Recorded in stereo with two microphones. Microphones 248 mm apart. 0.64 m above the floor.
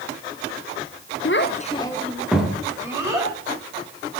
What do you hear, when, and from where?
1.2 s a child speaking: 55° left (ahead or behind), 0.7 m; by 3.3 s 15° right (ahead or behind), 2.5 m